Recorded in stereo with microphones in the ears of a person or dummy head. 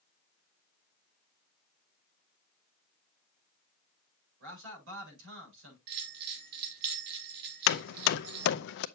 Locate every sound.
4.4 s a man speaking: 70° right (ahead or behind), 7 m
5.9 s a bell: 55° right (ahead or behind), 2 m
7.7 s hammering: 65° left (ahead or behind), 0.5 m